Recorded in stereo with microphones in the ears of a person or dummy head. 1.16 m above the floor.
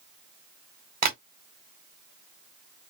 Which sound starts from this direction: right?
Tapping, at 1.0 s.